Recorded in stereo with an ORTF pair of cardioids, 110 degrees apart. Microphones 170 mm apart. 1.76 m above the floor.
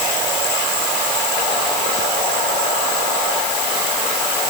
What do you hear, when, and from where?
Only background noise.